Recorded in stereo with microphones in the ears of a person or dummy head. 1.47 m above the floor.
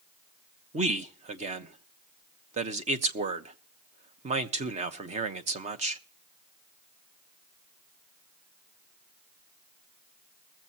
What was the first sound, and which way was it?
A man speaking, 35° right (ahead or behind).